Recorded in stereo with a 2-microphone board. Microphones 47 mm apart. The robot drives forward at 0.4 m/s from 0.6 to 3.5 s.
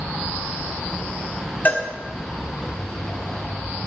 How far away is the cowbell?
About 1.3 m.